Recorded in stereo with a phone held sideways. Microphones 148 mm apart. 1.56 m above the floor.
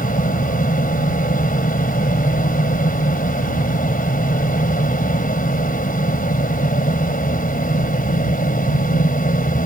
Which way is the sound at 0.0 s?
75° left (ahead or behind).